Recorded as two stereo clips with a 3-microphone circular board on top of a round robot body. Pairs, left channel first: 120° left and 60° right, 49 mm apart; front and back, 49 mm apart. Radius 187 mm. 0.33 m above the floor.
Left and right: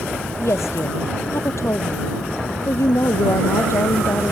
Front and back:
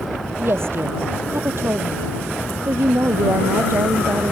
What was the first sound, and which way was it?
A woman speaking, 145° left.